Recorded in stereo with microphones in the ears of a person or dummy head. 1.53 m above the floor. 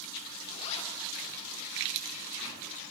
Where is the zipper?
35° left (ahead or behind), 3 m.